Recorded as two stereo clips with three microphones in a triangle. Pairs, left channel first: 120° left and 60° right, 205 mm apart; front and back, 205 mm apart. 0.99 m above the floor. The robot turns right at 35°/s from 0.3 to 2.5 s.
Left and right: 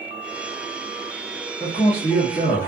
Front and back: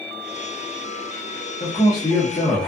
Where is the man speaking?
60° left, 0.8 m; by 2.7 s 90° left, 0.8 m.